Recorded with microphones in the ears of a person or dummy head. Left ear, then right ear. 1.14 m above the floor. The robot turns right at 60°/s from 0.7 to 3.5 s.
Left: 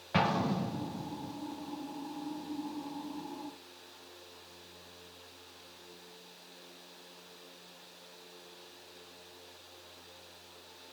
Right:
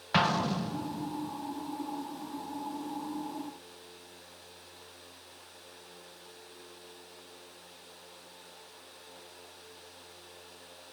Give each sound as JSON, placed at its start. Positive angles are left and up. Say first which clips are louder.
{"t": 0.1, "sound": "an explosion", "louder": "right 3 dB", "azimuth_deg": -45, "distance_m": 1.1}